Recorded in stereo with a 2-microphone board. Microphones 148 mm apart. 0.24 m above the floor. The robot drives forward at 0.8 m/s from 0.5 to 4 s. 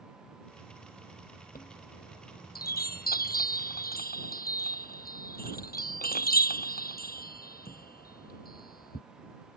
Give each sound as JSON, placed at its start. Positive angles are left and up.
{"t": 1.6, "sound": "a chime", "side_deg": 75}